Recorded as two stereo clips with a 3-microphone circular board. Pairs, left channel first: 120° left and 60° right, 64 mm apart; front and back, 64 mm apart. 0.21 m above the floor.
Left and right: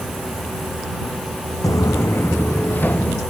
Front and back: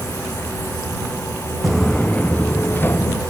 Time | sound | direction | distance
1.6 | footsteps | 100° left | ?